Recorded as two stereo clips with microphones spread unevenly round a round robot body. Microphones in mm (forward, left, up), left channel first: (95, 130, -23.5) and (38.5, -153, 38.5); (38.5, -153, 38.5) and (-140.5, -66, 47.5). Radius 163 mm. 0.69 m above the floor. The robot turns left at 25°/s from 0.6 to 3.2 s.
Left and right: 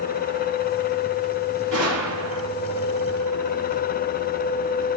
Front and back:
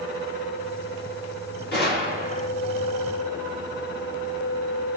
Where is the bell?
I don't hear a bell.